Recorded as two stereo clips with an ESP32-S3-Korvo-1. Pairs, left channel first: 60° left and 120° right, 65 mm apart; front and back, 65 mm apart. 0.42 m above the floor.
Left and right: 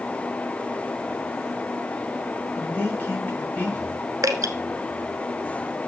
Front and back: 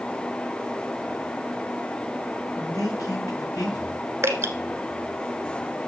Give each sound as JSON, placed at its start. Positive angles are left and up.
{"t": 2.6, "sound": "a man speaking", "azimuth_deg": 0, "distance_m": 6.0}
{"t": 4.2, "sound": "dripping", "azimuth_deg": -135, "distance_m": 1.4}